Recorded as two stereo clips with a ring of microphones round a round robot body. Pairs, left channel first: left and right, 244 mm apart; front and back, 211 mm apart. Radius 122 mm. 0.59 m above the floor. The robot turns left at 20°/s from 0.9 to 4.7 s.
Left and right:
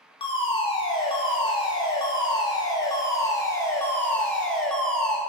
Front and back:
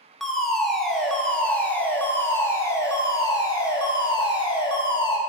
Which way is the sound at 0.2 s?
85° left.